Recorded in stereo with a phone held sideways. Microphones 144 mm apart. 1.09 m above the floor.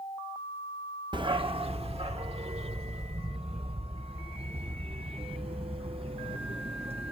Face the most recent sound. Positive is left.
turn(degrees=-40)  # may be behind; listen again after turning